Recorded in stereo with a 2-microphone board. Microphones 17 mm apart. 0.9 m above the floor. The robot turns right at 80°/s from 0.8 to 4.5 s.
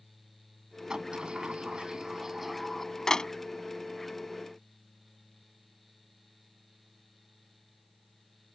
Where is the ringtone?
No ringtone in this recording.